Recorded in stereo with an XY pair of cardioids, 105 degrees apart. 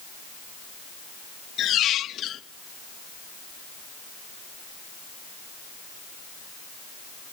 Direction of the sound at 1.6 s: 70° left.